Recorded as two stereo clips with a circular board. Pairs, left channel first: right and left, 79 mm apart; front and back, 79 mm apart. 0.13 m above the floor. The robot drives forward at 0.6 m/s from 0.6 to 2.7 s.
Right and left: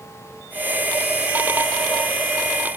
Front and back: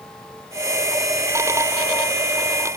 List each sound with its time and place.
Only background noise.